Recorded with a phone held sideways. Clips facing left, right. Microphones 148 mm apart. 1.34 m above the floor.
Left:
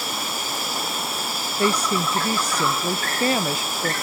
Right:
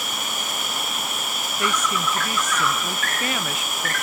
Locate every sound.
0.0 s an insect: 30° left (ahead or behind)
1.6 s a woman speaking: 35° left (ahead or behind)